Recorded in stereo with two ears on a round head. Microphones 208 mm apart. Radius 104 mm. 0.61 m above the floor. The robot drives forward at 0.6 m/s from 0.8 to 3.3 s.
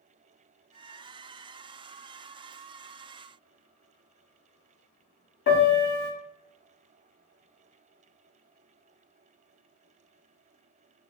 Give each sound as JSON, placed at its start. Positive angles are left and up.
{"t": 5.5, "sound": "a piano", "side_deg": 45, "distance_m": 0.7}